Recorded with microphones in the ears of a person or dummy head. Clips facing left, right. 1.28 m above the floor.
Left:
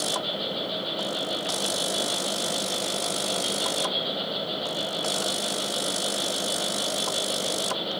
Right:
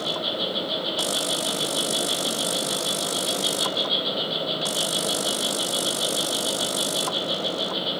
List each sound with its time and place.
0.0 s an insect: 60° right (ahead or behind), 3.5 m